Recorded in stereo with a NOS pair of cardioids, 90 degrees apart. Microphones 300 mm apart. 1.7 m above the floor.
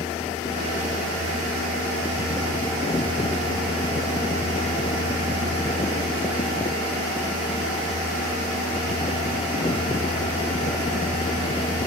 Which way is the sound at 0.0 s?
20° left.